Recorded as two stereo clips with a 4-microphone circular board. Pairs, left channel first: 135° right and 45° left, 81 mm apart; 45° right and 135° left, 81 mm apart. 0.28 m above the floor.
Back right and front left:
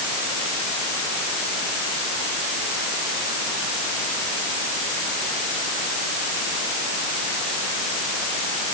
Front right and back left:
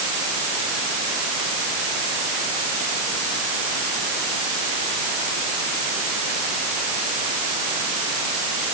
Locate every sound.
Only background noise.